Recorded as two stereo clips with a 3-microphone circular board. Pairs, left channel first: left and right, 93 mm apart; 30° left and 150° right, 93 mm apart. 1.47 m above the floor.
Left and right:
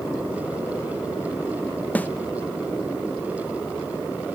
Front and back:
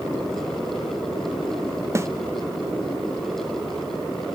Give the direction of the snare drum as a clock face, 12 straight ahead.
7 o'clock.